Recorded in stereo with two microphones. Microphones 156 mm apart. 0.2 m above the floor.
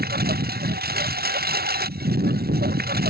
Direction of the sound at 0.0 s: 80° right.